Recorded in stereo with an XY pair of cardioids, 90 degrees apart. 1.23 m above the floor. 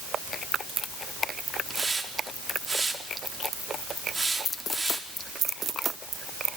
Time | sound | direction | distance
1.7 | a hiss | 20° right | 3.5 m